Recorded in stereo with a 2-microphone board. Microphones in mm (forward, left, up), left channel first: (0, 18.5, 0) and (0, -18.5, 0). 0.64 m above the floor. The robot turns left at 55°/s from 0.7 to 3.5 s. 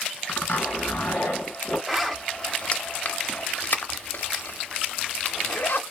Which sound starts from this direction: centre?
A zipper, at 1.9 s.